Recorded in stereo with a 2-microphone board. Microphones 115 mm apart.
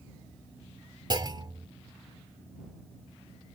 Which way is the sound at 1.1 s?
40° right (ahead or behind).